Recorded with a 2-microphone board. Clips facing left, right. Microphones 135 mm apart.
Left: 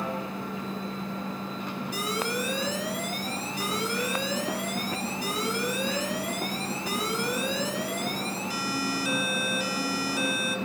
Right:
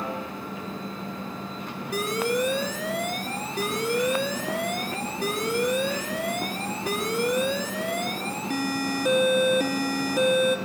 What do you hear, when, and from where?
1.9 s an alarm: 55° right (ahead or behind), 3 m